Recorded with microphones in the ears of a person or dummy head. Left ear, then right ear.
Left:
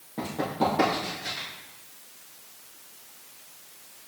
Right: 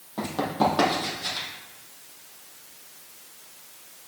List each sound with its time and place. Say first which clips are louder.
0.2 s running footsteps: right 3 dB; 40° right (ahead or behind), 3.5 m; by 1.5 s 50° right (ahead or behind), 3.5 m